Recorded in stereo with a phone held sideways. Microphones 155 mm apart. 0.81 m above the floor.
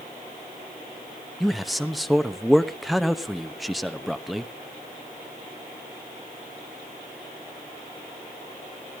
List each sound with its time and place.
1.4 s a man speaking: centre (ahead or behind), 1.0 m